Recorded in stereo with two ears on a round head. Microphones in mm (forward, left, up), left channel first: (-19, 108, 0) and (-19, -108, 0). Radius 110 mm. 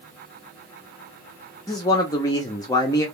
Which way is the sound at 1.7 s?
15° left (ahead or behind).